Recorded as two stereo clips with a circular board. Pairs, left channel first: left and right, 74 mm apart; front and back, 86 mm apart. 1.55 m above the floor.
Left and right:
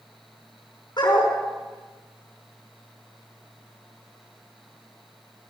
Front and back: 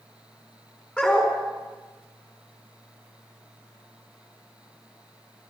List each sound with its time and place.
1.0 s a dog barking: 75° left, 6 m